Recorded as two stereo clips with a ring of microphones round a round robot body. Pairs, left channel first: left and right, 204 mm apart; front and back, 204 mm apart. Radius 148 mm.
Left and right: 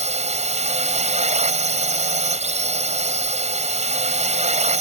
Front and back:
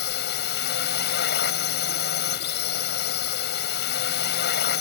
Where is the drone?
40° right.